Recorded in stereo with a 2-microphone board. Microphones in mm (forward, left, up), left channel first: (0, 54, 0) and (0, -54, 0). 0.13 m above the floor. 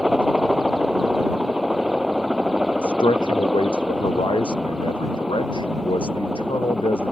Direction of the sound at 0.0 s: 10° right (ahead or behind).